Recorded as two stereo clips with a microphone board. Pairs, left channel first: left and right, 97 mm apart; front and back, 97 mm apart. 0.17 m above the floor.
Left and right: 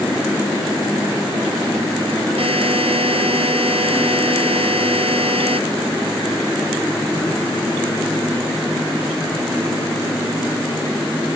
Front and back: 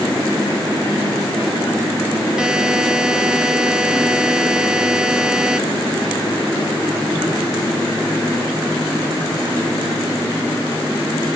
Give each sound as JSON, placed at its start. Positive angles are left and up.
{"t": 2.4, "sound": "a buzzer", "azimuth_deg": -95}